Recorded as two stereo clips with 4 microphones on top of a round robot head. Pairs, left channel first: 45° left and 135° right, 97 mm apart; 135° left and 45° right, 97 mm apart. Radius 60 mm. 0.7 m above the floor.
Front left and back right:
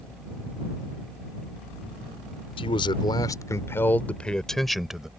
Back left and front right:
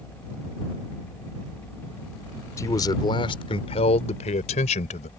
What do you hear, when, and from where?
2.6 s a man speaking: 75° left; by 5.1 s 140° left